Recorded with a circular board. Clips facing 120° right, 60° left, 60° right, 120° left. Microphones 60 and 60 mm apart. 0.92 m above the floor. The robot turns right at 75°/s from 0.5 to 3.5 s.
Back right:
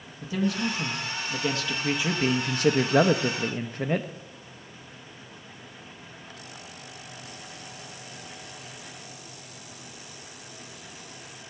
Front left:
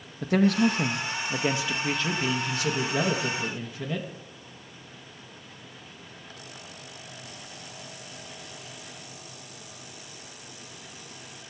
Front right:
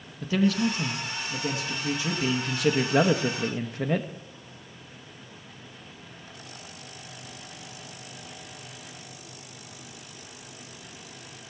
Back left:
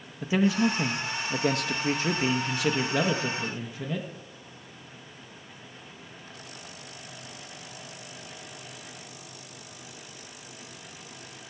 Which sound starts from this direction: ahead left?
A man speaking, at 0.2 s.